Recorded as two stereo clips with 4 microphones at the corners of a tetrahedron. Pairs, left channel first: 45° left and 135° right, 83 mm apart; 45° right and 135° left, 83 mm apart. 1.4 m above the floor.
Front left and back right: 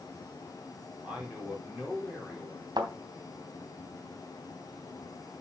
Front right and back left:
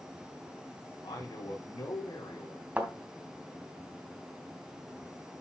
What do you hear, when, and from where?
1.0 s a man speaking: 55° right, 4.5 m; by 2.7 s 45° right, 4.5 m
2.8 s a thud: 155° right, 3 m